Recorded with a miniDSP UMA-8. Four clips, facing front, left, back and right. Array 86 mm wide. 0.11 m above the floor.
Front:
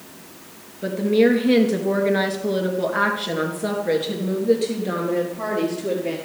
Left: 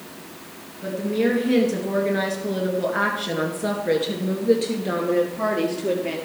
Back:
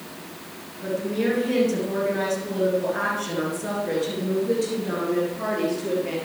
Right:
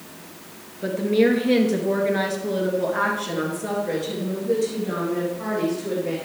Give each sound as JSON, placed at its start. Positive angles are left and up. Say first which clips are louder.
{"t": 0.8, "sound": "a woman speaking", "louder": "right 3 dB, front 7 dB", "azimuth_deg": -35, "distance_m": 2.0}